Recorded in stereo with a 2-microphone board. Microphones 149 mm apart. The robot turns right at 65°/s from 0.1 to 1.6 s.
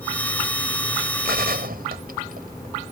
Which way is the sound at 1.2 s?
75° right (ahead or behind).